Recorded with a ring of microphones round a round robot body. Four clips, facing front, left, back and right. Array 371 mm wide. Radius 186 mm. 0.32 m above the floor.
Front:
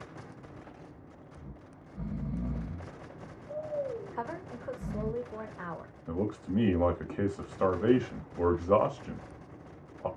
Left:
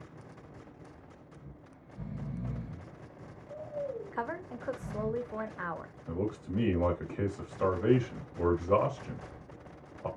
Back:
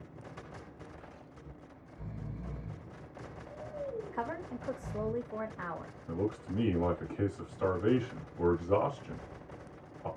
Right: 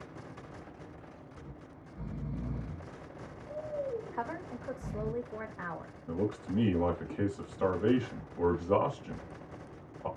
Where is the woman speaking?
90° left, 1.2 m.